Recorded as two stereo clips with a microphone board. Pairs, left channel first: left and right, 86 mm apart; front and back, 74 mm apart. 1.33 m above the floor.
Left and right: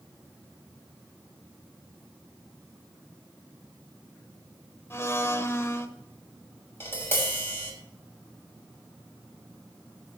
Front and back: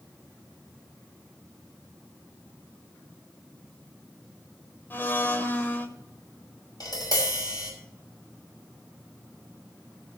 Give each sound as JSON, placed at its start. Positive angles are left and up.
{"t": 4.9, "sound": "a blender", "azimuth_deg": 50, "distance_m": 1.3}
{"t": 6.8, "sound": "tapping", "azimuth_deg": 25, "distance_m": 6.5}